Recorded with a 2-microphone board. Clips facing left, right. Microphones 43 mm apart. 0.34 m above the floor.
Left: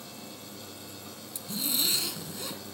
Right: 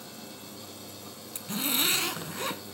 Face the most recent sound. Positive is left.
turn(degrees=-50)  # may be behind; listen again after turning